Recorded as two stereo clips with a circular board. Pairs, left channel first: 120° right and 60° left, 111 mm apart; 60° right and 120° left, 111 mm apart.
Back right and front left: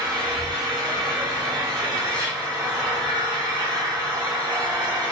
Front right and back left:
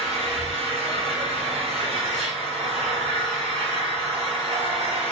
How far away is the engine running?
About 0.8 m.